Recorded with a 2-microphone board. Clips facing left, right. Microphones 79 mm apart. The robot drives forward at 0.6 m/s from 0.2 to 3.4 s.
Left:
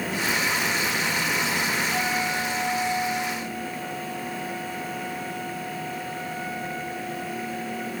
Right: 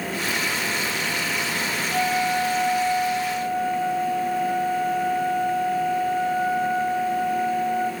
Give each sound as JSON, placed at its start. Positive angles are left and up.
{"t": 1.9, "sound": "a flute", "side_deg": -15, "distance_m": 0.9}